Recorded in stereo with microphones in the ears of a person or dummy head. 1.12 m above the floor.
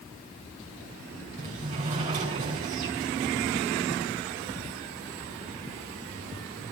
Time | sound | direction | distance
1.4 | a sliding door | 40° right (ahead or behind) | 4 m